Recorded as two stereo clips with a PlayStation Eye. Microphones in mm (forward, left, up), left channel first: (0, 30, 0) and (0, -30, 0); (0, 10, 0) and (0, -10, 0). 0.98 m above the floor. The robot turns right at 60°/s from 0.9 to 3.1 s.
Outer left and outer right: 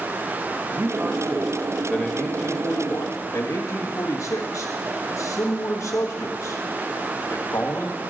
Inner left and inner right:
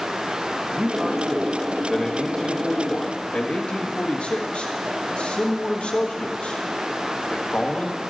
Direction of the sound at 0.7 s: 55° right.